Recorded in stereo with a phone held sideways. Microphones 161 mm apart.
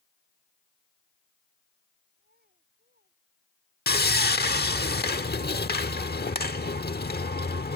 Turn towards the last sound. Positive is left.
turn(degrees=80)